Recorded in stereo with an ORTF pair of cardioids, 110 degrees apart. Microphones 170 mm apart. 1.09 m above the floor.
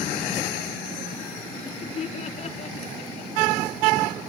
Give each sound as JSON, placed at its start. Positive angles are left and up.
{"t": 1.5, "sound": "laughter", "azimuth_deg": 45, "distance_m": 2.5}